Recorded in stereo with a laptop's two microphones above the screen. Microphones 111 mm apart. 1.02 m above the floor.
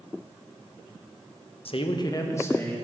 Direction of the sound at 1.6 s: 60° left (ahead or behind).